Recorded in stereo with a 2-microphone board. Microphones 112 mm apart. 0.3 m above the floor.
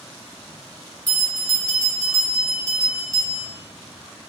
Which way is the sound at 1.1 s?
25° right (ahead or behind).